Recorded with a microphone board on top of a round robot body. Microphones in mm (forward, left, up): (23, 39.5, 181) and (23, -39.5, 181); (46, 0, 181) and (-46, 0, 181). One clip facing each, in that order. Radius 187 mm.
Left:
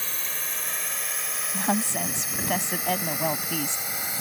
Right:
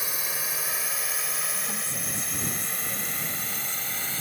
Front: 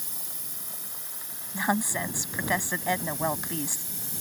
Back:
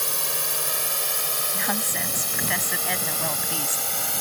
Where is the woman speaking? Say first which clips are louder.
Left 9 dB, front 4 dB; 75° left.